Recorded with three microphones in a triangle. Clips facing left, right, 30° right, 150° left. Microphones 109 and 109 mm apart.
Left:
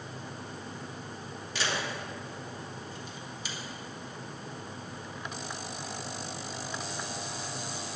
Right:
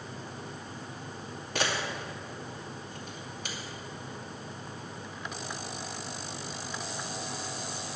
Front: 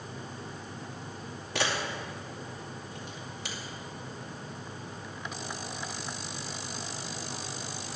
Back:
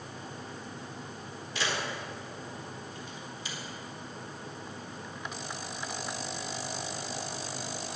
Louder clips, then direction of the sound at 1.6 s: Right 2 dB, front 2 dB; 50° right.